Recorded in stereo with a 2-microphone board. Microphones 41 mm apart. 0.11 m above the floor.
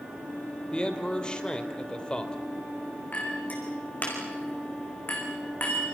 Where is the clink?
45° left (ahead or behind), 6 m.